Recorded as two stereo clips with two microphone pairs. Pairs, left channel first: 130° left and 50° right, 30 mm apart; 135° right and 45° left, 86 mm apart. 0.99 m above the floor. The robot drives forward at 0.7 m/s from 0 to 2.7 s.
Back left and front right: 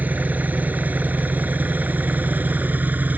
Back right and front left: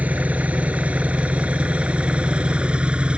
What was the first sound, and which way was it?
An engine running, 30° right.